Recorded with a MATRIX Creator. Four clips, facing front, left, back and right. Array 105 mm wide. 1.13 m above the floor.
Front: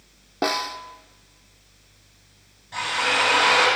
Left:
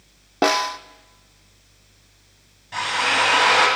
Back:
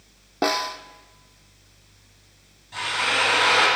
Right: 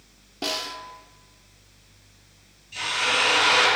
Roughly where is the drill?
Left.